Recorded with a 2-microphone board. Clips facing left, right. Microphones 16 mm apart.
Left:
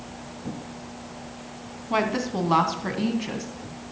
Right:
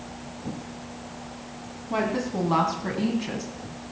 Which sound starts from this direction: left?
A woman speaking, at 1.9 s.